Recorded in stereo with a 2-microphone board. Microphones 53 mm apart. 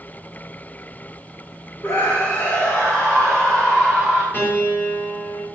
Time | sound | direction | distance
1.8 | a scream | 50° left (ahead or behind) | 2 m
4.3 | a piano | 35° left (ahead or behind) | 5 m